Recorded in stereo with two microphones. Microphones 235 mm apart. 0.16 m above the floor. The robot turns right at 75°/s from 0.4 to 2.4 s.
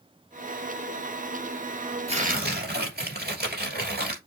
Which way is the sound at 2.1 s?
25° right (ahead or behind).